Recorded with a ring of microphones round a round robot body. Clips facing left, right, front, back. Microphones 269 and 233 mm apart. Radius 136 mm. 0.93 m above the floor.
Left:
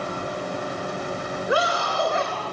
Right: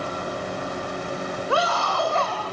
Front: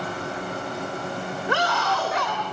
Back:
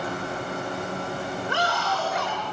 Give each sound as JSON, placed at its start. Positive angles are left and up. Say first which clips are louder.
{"t": 1.5, "sound": "a scream", "louder": "left 1 dB, front 5 dB", "azimuth_deg": 15, "distance_m": 3.5}